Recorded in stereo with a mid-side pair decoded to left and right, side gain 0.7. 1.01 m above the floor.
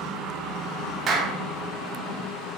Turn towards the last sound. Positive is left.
turn(degrees=-40)